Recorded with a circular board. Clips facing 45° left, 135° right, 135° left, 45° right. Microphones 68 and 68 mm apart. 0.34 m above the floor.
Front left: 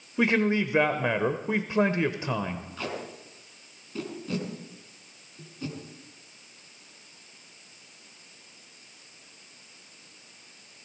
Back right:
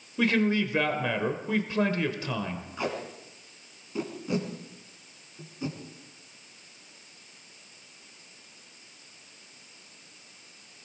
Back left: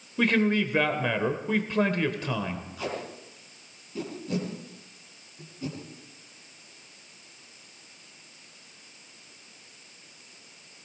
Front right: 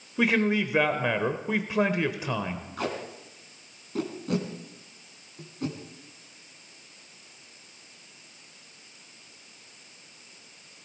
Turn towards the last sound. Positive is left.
turn(degrees=-65)